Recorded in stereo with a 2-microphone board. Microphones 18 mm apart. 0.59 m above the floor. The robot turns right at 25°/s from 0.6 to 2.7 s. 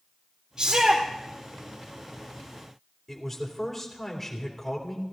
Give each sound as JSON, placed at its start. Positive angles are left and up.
{"t": 0.6, "sound": "a shout", "side_deg": -40, "distance_m": 2.0}
{"t": 3.1, "sound": "a man speaking", "side_deg": 15, "distance_m": 2.5}